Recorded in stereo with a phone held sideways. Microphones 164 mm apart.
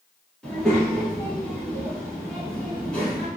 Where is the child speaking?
5° left (ahead or behind), 1.2 m.